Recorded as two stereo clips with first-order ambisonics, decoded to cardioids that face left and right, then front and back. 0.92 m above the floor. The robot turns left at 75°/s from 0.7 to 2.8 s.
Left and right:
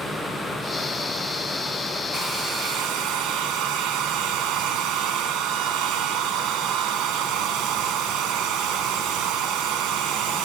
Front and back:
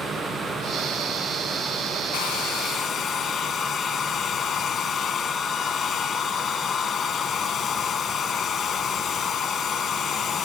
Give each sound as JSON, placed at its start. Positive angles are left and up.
{"t": 2.1, "sound": "a hair dryer", "azimuth_deg": -15, "distance_m": 1.8}